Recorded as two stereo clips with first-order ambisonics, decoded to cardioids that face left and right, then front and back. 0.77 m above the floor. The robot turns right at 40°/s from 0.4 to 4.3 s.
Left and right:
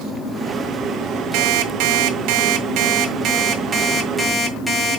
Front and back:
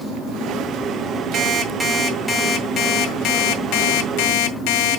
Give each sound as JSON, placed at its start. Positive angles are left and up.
{"t": 1.3, "sound": "an alarm clock", "azimuth_deg": -120, "distance_m": 1.7}